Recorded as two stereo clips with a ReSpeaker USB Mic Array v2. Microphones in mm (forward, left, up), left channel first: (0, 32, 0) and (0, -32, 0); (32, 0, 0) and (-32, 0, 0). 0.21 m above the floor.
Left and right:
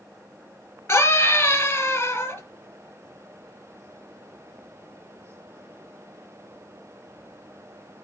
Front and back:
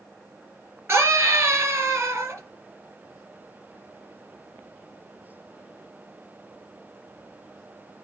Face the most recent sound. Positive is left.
turn(degrees=135)